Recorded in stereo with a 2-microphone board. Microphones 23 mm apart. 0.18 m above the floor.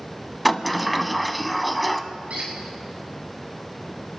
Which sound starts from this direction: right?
A squeak, at 2.3 s.